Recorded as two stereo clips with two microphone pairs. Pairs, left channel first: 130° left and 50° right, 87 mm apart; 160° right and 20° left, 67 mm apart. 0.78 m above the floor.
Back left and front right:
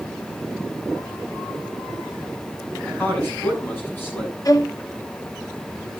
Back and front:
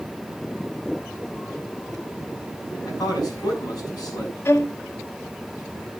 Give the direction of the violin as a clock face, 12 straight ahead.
7 o'clock.